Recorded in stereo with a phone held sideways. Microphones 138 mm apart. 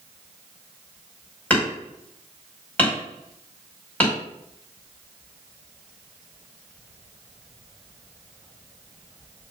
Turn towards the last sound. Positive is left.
turn(degrees=10)  # may be behind; listen again after turning